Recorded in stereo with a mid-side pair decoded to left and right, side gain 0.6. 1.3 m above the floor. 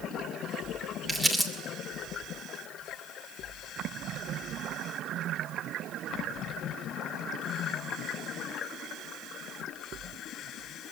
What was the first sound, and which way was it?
Crumpling, 10° right.